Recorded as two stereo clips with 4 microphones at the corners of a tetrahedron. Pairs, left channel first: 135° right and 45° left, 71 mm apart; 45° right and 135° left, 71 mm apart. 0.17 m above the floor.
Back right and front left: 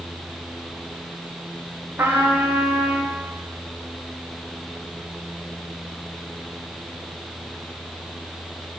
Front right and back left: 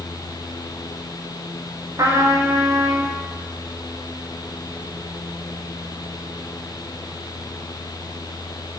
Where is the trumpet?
100° left, 5.5 m.